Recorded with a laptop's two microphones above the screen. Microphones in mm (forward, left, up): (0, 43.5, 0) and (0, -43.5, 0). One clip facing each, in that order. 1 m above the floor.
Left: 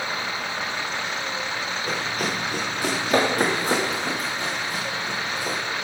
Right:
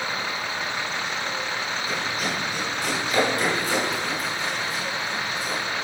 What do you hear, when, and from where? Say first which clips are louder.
1.9 s running footsteps: left 3 dB; 50° left (ahead or behind), 5 m; by 5.6 s 55° left (ahead or behind), 3 m